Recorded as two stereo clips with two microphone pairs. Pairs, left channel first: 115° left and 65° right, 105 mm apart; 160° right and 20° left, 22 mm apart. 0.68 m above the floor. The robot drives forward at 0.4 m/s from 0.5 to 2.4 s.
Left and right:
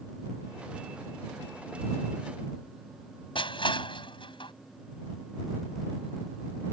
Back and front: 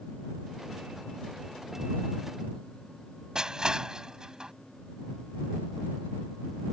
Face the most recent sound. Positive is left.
turn(degrees=80)